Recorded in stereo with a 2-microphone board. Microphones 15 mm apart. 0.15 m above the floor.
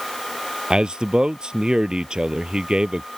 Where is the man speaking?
65° right (ahead or behind).